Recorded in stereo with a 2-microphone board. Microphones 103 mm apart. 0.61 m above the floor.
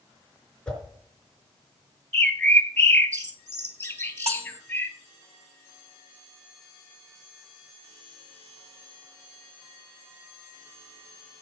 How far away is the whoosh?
About 4.5 m.